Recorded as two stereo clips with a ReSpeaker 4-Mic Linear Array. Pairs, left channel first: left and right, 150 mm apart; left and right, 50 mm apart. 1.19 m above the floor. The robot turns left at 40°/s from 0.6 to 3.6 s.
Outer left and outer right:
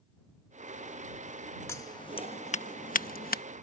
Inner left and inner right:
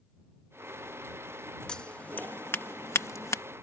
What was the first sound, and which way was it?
Scissors, 20° left (ahead or behind).